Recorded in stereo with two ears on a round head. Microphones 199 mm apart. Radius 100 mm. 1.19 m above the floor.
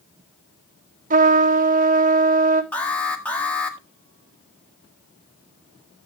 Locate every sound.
1.1 s a trumpet: 35° right (ahead or behind), 1.4 m
2.7 s an alarm: 5° left (ahead or behind), 2 m